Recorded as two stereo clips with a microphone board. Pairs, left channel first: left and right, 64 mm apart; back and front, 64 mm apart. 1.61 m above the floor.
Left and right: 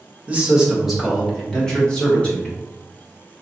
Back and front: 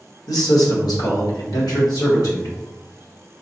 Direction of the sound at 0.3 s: 155° right.